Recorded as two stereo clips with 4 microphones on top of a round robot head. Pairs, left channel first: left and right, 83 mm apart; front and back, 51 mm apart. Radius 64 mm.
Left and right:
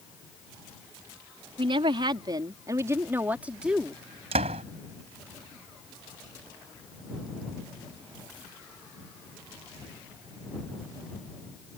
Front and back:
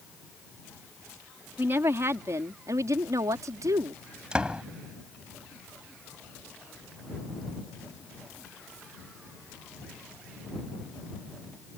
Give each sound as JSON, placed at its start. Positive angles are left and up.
{"t": 1.6, "sound": "a woman speaking", "azimuth_deg": -120}
{"t": 4.3, "sound": "a door slam", "azimuth_deg": -100}